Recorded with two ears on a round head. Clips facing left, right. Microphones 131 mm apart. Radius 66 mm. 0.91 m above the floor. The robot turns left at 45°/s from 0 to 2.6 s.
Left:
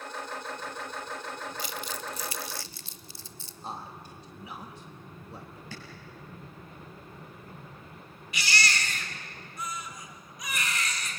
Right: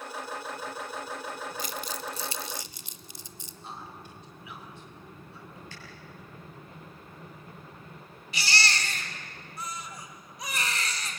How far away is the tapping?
About 7 m.